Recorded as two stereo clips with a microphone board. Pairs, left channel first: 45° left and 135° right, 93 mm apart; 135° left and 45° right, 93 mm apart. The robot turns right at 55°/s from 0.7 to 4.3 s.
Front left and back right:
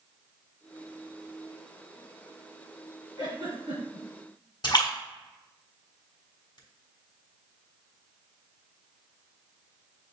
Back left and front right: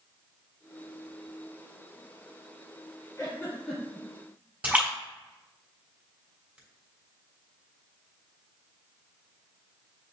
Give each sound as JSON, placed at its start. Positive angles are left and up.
{"t": 3.2, "sound": "a giggle", "azimuth_deg": -170, "distance_m": 1.9}
{"t": 4.6, "sound": "a splash", "azimuth_deg": 25, "distance_m": 1.5}